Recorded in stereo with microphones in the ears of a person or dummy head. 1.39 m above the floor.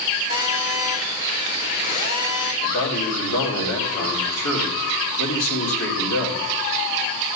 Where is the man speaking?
90° left, 4 m.